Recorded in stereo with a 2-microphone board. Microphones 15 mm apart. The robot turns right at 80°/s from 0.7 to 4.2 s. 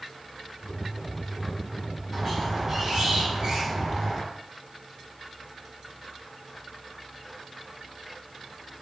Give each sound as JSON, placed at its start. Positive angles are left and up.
{"t": 2.1, "sound": "a squeak", "azimuth_deg": 170, "distance_m": 1.3}